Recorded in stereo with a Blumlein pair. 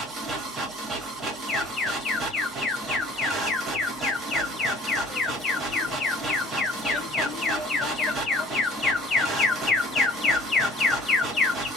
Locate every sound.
0.0 s a machine running: 15° right, 1.4 m
1.5 s an alarm: 15° left, 0.8 m